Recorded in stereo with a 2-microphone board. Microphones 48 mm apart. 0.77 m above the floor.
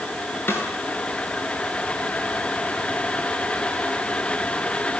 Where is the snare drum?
50° left (ahead or behind), 9.5 m.